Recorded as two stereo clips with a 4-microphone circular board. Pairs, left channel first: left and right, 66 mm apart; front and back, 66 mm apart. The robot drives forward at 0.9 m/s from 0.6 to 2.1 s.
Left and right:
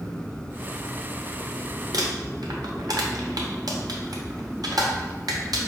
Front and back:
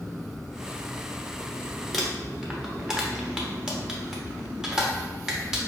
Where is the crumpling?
90° right, 0.8 m; by 5.6 s 100° right, 0.8 m.